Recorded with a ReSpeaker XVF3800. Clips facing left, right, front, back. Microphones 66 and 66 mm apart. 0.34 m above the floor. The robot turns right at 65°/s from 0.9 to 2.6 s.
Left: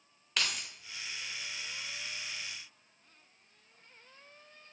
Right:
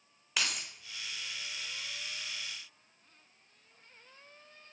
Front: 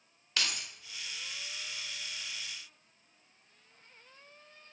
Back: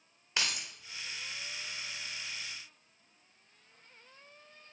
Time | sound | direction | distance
0.4 | keys jangling | 165° right | 0.5 m